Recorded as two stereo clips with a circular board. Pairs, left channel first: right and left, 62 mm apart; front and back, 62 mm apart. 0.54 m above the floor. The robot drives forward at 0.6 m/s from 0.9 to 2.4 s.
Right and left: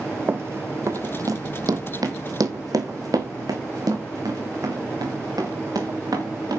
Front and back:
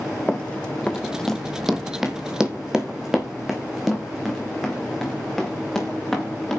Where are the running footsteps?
65° left, 0.7 m; by 6.6 s 85° left, 4 m.